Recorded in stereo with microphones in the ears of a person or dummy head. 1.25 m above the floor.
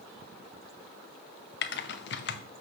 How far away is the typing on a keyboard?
About 0.6 m.